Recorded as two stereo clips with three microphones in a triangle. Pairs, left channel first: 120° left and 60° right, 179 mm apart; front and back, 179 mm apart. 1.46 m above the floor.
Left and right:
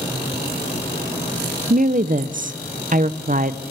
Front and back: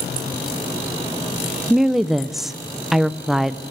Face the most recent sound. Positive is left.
turn(degrees=-90)